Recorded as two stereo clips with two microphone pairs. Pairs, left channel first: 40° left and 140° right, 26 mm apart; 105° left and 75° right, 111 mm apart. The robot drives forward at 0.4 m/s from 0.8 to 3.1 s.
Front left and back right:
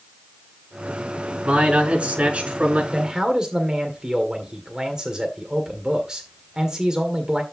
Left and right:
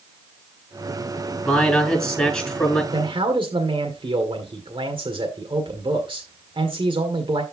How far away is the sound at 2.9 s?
About 1.7 m.